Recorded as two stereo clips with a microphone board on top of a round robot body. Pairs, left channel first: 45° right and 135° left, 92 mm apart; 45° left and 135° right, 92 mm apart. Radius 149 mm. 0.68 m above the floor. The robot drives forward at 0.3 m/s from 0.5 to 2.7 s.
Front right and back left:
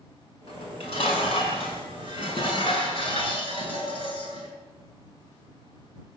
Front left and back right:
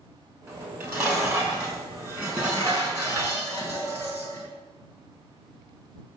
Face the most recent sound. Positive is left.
turn(degrees=-75)